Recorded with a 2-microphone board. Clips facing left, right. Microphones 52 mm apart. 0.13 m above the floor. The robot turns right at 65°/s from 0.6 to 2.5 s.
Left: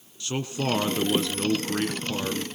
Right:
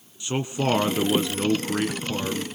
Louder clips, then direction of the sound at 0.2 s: Right 3 dB; 20° right (ahead or behind).